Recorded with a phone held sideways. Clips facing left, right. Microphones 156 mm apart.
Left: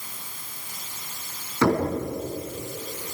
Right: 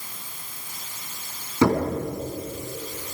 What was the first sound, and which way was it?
Knocking, 20° right (ahead or behind).